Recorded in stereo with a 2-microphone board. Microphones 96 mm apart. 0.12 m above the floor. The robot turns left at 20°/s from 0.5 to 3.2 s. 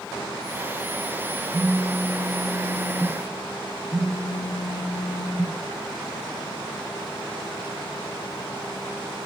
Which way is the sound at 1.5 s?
35° right.